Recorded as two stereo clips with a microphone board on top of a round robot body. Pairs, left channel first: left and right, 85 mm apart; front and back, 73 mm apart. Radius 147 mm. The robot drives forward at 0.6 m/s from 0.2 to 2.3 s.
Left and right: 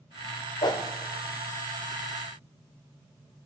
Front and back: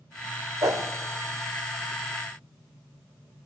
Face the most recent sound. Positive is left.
turn(degrees=165)